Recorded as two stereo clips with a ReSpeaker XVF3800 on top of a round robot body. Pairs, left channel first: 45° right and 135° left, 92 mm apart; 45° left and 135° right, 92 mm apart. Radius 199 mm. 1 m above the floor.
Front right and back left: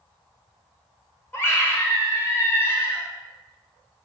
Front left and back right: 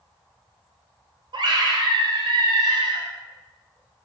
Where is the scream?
105° right, 1.4 m.